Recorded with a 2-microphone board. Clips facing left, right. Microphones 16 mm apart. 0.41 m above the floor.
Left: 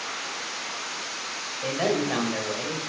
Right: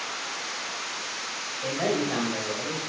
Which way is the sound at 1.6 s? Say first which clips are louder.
Left 1 dB; 25° left (ahead or behind).